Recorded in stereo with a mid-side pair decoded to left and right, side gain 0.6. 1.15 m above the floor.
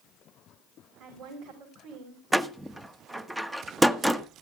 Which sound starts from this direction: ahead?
A door slam, at 2.3 s.